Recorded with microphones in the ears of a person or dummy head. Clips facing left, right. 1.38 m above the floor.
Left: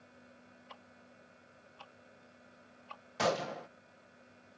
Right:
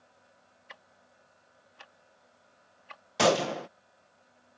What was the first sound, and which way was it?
Ticking, 20° right (ahead or behind).